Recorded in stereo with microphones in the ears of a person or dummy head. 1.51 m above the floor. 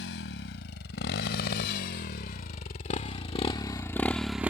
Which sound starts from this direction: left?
A motorcycle, at 0.0 s.